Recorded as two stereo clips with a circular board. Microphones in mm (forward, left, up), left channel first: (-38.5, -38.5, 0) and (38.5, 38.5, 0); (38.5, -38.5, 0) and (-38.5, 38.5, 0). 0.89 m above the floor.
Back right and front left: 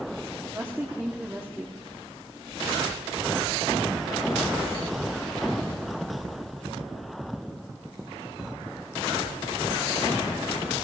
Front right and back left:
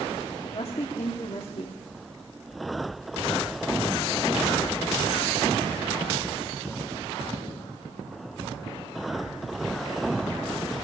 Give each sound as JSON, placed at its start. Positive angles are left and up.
{"t": 0.4, "sound": "a woman speaking", "azimuth_deg": -25, "distance_m": 1.7}